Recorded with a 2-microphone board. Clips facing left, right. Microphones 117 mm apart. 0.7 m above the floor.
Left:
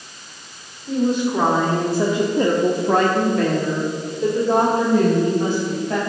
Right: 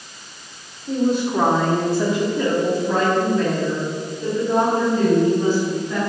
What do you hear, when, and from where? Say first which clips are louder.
0.9 s a woman speaking: even; 15° right (ahead or behind), 2 m; by 6.0 s 65° left (ahead or behind), 4 m